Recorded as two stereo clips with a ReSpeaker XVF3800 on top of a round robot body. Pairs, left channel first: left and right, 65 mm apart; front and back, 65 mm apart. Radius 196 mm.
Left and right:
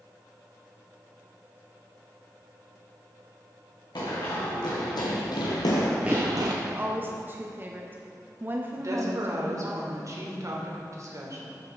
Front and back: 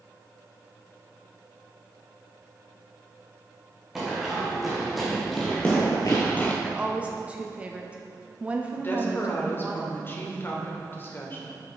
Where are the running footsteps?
95° left, 3 m; by 6.5 s 70° right, 0.9 m.